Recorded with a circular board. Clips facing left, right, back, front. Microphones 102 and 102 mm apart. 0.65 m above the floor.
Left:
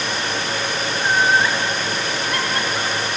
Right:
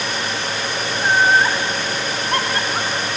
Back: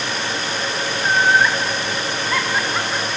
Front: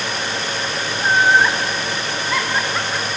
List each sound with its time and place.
1.0 s laughter: 45° right, 1.4 m; by 3.1 s 105° right, 1.7 m